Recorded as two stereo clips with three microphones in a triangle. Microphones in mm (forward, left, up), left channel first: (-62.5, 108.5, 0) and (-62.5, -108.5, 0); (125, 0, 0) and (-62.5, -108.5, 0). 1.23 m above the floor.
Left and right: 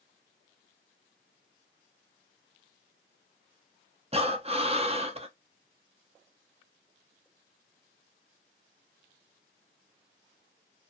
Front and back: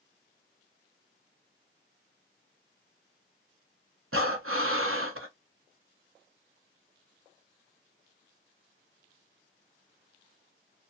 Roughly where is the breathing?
Behind right.